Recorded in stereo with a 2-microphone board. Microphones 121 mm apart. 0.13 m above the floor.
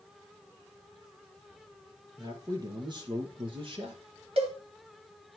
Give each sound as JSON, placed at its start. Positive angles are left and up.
{"t": 2.2, "sound": "a man speaking", "side_deg": -30, "distance_m": 3.0}
{"t": 4.4, "sound": "a cowbell", "side_deg": -50, "distance_m": 2.5}